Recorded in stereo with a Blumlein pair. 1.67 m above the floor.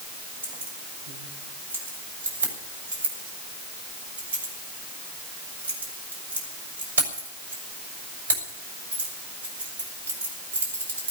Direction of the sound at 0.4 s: 70° right.